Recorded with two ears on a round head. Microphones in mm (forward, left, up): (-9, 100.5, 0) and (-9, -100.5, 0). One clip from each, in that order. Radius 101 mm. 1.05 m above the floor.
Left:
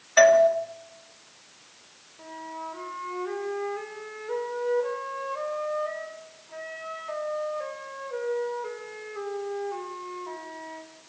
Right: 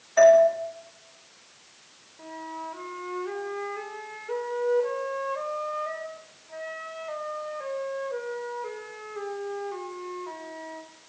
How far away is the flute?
About 4 m.